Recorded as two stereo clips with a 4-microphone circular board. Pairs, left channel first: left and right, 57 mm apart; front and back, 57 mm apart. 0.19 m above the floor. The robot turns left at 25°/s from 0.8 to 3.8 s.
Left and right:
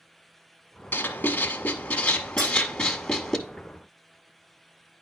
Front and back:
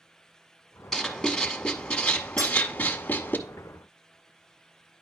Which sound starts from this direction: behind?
Cutlery clinking, at 2.4 s.